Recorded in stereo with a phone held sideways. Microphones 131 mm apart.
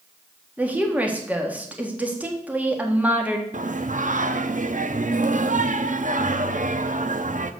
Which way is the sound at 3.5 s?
80° right.